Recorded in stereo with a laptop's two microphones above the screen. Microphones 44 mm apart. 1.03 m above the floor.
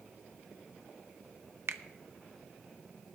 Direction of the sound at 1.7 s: 65° right (ahead or behind).